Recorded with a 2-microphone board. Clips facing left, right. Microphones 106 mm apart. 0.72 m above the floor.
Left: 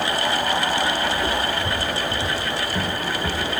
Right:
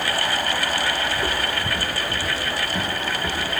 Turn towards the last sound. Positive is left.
turn(degrees=10)  # may be behind; listen again after turning